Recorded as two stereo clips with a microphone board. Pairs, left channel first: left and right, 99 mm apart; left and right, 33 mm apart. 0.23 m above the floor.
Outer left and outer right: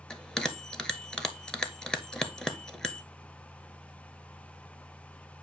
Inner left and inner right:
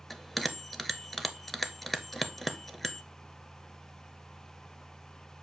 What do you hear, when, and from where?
0.1 s a bell: 10° left (ahead or behind), 0.6 m